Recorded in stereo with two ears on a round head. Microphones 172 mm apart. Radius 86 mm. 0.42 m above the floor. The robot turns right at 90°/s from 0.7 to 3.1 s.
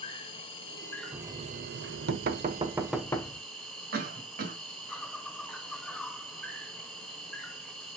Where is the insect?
150° left, 3.5 m; by 8.0 s 5° left, 3.5 m.